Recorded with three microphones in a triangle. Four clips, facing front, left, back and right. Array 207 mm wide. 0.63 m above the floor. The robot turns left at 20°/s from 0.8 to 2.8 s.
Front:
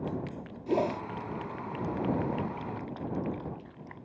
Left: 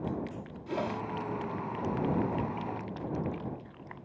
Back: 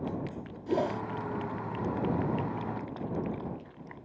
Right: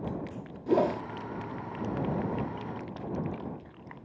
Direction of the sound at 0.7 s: 80° right.